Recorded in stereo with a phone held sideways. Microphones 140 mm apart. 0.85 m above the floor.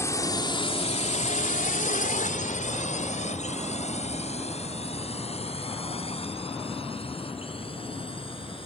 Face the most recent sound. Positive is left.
turn(degrees=40)  # may be behind; listen again after turning